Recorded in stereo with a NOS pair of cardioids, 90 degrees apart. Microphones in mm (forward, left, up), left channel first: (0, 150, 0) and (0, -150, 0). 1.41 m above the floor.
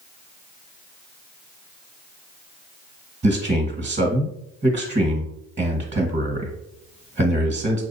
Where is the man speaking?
25° right, 1.4 m.